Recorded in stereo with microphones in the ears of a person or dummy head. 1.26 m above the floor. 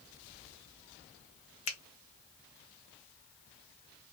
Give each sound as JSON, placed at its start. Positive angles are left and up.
{"t": 1.7, "sound": "a finger snap", "side_deg": 35, "distance_m": 0.6}